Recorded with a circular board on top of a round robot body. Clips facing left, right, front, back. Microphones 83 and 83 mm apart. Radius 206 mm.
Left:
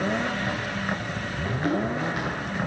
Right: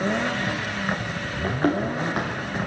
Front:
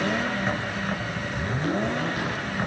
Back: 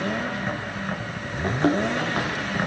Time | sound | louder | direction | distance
1.4 | running footsteps | right 3 dB, back 6 dB | 135° right | 4 m